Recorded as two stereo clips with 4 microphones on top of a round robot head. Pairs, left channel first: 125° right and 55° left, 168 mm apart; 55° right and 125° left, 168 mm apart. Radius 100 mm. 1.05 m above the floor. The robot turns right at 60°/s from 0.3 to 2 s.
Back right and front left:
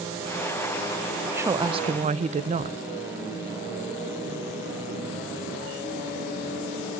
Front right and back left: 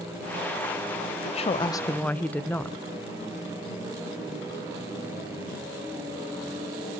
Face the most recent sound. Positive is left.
turn(degrees=25)